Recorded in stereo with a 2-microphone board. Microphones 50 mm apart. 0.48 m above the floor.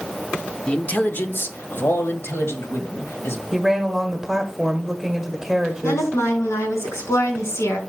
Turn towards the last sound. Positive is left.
turn(degrees=75)  # may be behind; listen again after turning